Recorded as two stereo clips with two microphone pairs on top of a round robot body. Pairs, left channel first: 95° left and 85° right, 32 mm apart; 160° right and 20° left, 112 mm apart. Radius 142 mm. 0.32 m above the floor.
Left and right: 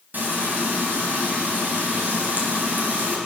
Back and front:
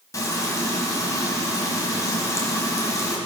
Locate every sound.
0.1 s frying: 95° right, 3 m